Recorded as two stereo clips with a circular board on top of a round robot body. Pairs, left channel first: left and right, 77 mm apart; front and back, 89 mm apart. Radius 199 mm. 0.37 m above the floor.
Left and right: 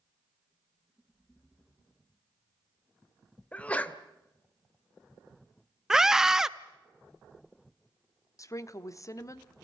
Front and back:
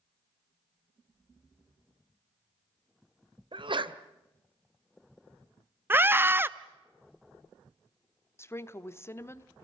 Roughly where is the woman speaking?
Ahead left.